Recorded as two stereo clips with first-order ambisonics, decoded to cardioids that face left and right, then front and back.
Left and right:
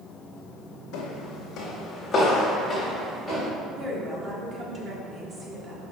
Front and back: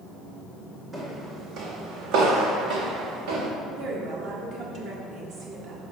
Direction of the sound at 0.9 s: 100° left.